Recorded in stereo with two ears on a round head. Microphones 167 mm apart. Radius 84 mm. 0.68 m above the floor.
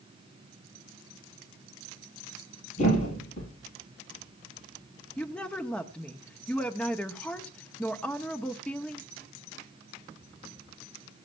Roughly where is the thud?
Left.